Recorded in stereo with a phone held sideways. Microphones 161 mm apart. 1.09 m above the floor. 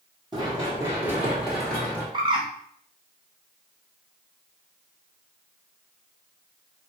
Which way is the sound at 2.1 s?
30° right (ahead or behind).